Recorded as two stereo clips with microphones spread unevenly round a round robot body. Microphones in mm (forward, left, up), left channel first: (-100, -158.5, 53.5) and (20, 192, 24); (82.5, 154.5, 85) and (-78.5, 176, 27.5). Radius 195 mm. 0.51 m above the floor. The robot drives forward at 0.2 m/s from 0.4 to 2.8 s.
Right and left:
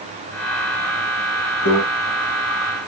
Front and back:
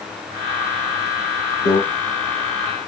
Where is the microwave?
40° right, 1.7 m.